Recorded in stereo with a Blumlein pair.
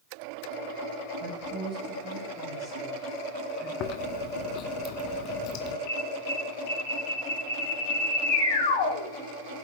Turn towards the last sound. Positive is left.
turn(degrees=45)